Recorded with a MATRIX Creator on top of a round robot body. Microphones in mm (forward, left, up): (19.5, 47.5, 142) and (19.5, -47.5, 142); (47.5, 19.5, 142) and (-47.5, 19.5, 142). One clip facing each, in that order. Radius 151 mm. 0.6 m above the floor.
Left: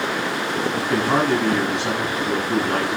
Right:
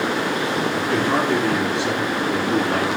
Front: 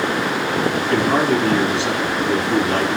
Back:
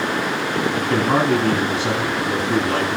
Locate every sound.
0.8 s a man speaking: 135° left, 8 m